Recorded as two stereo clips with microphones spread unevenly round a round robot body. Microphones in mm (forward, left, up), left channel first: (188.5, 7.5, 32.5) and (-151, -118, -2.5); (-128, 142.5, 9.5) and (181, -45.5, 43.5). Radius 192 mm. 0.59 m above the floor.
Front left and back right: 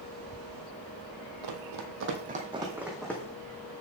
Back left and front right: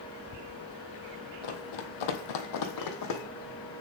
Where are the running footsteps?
165° left, 1.1 m; by 3.2 s 100° left, 1.5 m.